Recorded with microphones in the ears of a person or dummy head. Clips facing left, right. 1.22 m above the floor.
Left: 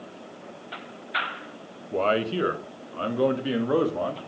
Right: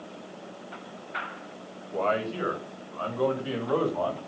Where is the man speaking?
55° left (ahead or behind), 1.6 m; by 4.2 s 35° left (ahead or behind), 3 m.